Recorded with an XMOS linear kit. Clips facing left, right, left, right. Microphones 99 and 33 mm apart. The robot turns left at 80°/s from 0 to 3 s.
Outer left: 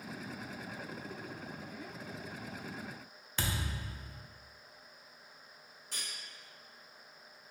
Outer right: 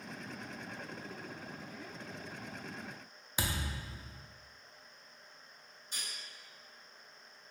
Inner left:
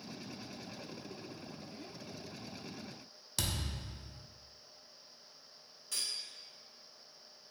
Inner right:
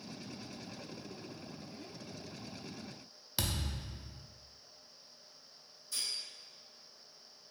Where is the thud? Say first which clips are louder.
Even, inner right 1 dB; 10° right (ahead or behind), 0.5 m.